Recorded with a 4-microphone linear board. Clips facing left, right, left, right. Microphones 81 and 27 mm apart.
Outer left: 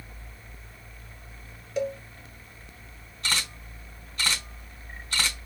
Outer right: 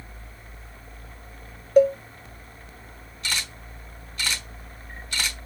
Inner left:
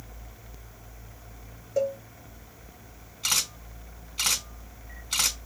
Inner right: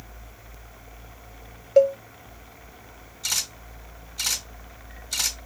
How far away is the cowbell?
About 0.8 m.